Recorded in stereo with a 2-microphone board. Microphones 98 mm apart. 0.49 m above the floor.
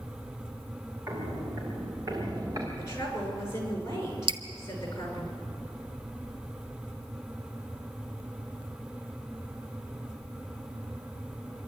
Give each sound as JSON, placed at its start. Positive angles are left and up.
{"t": 1.1, "sound": "footsteps", "side_deg": -30, "distance_m": 5.5}
{"t": 2.8, "sound": "a woman speaking", "side_deg": 35, "distance_m": 5.5}
{"t": 4.3, "sound": "dripping", "side_deg": -60, "distance_m": 0.8}